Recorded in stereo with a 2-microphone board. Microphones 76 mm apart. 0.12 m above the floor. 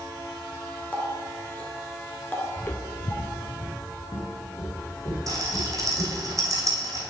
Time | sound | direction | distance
0.9 | a running tap | 25° left (ahead or behind) | 1.1 m
2.6 | footsteps | 15° left (ahead or behind) | 0.7 m
5.3 | a rattle | 45° right (ahead or behind) | 2.5 m